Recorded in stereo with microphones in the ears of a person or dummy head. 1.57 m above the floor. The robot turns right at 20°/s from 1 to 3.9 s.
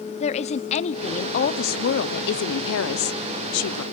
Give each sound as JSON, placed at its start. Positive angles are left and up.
{"t": 0.2, "sound": "a woman speaking", "azimuth_deg": 35, "distance_m": 0.8}